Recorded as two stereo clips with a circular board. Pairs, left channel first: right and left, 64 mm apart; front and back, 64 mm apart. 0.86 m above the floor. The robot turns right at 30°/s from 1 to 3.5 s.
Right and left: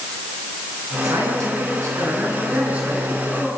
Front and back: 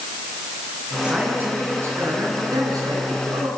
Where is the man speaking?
105° left, 9 m; by 3.5 s straight behind, 9 m.